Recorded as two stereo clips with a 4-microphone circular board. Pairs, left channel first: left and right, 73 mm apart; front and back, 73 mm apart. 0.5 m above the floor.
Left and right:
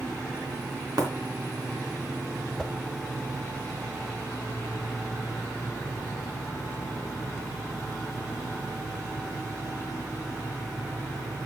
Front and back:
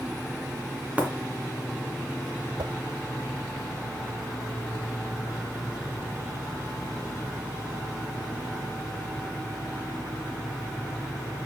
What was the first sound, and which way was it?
Breaking glass, 110° right.